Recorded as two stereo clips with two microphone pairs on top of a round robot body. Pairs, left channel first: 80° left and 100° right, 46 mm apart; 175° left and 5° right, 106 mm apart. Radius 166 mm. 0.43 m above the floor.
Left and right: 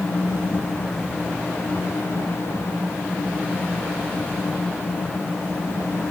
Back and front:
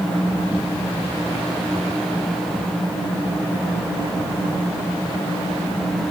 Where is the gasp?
I don't hear a gasp.